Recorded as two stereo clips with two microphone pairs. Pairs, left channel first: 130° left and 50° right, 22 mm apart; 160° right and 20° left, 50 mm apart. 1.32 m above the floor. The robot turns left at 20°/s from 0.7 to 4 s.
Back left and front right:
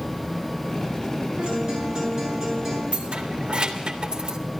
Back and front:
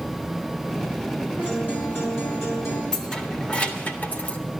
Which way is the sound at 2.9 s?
85° right.